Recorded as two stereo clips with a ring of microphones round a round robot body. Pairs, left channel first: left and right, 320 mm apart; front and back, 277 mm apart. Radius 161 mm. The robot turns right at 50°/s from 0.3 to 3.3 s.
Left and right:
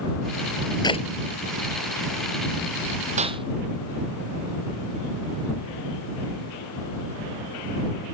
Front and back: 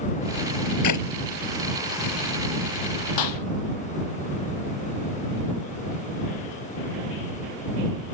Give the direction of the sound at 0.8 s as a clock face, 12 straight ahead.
12 o'clock.